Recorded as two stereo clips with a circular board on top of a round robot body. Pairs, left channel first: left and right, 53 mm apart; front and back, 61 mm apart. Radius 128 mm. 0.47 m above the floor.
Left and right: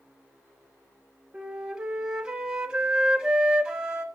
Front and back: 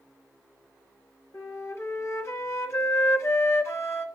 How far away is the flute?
About 1.3 m.